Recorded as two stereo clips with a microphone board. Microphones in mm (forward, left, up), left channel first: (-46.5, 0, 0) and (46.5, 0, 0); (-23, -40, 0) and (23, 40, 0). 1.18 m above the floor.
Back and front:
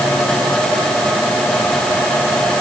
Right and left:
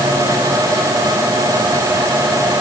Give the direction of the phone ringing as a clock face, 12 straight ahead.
I don't hear a phone ringing.